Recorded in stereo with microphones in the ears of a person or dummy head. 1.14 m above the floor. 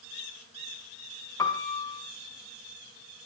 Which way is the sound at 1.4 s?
15° left (ahead or behind).